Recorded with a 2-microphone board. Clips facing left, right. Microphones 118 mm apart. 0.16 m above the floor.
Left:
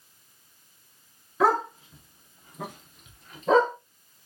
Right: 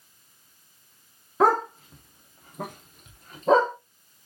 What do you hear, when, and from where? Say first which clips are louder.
1.4 s a dog barking: right 2 dB; 45° right (ahead or behind), 1.0 m; by 3.7 s 35° right (ahead or behind), 1.6 m